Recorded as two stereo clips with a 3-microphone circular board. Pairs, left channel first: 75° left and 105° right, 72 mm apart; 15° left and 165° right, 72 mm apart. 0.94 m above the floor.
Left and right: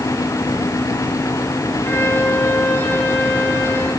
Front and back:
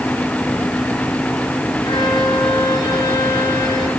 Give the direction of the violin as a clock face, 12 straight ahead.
12 o'clock.